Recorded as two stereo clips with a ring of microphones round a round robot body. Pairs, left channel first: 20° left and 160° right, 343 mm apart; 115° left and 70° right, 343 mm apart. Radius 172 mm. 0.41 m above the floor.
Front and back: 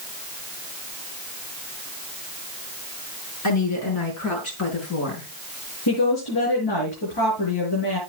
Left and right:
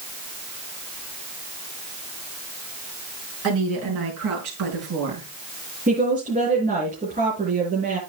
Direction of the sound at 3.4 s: 20° right.